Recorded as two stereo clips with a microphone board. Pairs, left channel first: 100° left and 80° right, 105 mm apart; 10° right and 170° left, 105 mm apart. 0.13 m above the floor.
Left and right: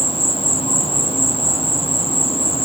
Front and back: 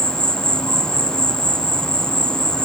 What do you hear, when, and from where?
0.0 s an insect: 75° left